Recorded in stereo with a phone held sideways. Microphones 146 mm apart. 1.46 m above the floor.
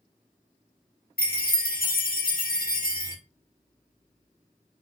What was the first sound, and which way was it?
A chime, 85° left.